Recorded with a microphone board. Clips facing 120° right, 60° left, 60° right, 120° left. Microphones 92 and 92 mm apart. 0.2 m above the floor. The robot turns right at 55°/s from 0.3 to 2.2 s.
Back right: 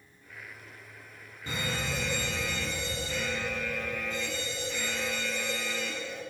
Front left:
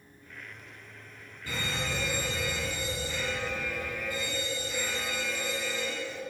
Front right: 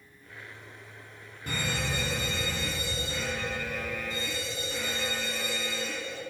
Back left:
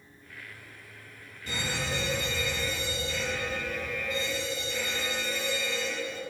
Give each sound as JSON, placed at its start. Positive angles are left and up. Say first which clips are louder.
{"t": 1.5, "sound": "a fire alarm", "louder": "even, front right 1 dB", "azimuth_deg": -60, "distance_m": 3.0}